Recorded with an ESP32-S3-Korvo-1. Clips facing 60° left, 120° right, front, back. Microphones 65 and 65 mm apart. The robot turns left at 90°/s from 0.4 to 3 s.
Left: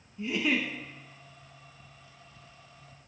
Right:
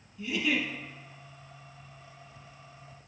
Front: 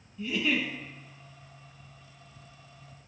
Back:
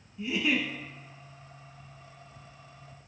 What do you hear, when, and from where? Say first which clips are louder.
0.2 s a giggle: left 1 dB, even; 115° left, 0.6 m; by 0.7 s 90° left, 0.6 m